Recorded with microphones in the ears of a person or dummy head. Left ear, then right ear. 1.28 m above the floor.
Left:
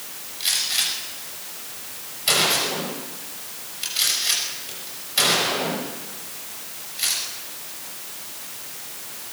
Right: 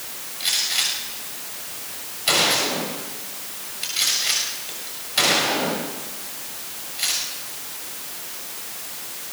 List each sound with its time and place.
0.4 s a gunshot: 5° right (ahead or behind), 6.5 m